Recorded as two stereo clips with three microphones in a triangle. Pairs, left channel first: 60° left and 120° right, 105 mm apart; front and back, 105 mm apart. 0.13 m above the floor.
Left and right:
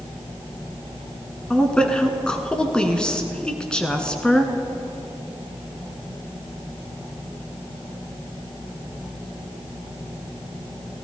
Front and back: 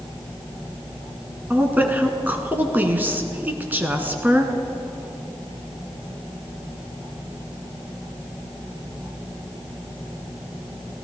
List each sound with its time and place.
1.5 s a woman speaking: 130° left, 1.3 m